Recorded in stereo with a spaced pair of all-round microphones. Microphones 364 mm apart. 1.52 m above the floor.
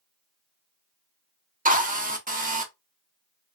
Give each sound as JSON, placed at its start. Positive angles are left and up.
{"t": 1.6, "sound": "a drill", "side_deg": -25, "distance_m": 0.6}